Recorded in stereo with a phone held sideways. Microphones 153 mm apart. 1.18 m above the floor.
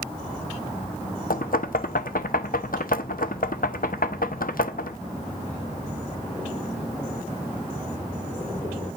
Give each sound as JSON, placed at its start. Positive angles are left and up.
{"t": 1.3, "sound": "knocking", "side_deg": 75, "distance_m": 0.8}